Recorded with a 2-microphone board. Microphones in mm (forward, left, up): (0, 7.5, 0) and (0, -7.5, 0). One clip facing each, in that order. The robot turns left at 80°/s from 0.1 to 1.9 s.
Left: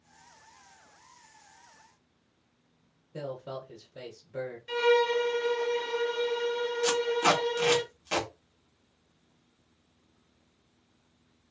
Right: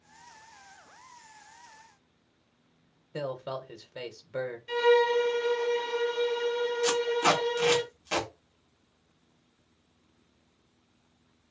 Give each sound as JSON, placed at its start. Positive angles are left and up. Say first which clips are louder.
{"t": 3.1, "sound": "a man speaking", "louder": "right 3 dB", "side_deg": -65, "distance_m": 0.6}
{"t": 4.7, "sound": "a violin", "louder": "right 1 dB", "side_deg": 10, "distance_m": 0.6}
{"t": 6.8, "sound": "tape being pulled", "louder": "left 1 dB", "side_deg": 15, "distance_m": 1.3}